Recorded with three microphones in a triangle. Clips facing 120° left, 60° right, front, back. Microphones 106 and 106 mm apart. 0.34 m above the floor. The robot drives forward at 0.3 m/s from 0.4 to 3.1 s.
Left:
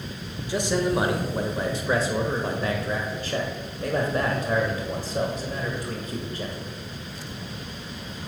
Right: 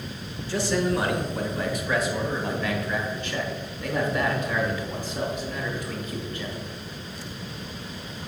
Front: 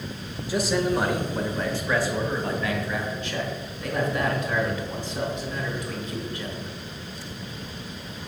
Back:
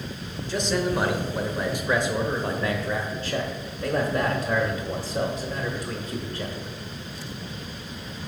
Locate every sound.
0.5 s a man speaking: 70° left, 0.9 m; by 6.7 s 150° left, 1.1 m